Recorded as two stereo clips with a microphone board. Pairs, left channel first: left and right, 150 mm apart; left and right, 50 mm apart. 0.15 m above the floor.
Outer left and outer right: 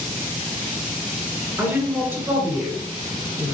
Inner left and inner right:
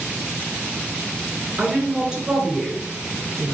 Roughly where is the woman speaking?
Centre.